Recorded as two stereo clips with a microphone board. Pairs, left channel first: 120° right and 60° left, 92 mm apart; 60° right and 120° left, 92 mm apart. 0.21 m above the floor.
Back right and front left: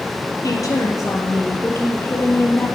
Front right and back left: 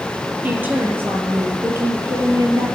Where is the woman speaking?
170° right, 5 m; by 2.7 s 175° left, 5 m.